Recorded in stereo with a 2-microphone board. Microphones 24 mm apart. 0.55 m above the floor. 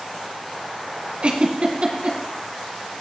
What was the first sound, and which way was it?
A giggle, 45° right (ahead or behind).